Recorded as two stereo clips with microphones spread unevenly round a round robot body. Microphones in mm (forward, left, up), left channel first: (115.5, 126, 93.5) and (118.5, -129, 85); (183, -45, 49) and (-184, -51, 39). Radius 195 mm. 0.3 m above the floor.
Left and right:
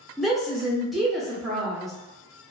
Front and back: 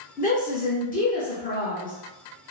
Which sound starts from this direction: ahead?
A woman speaking, at 0.2 s.